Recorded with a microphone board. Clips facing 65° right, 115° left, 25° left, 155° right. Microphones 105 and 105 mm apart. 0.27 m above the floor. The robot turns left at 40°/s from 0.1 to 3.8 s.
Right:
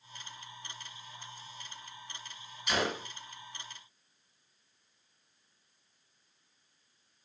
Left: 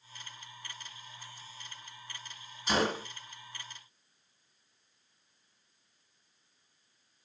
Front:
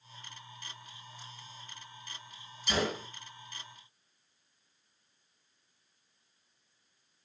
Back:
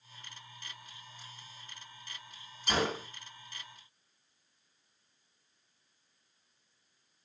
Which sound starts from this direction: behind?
A gunshot, at 2.7 s.